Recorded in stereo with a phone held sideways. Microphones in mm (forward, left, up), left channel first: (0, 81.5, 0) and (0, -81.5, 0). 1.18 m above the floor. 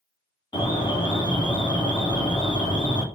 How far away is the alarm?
About 3 m.